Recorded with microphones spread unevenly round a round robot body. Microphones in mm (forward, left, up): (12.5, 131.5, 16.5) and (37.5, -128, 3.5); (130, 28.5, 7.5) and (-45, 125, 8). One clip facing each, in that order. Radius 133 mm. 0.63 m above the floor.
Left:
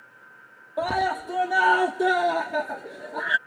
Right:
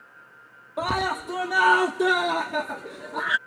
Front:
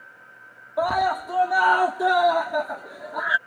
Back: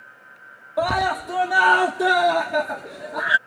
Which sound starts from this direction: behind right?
A scream, at 0.8 s.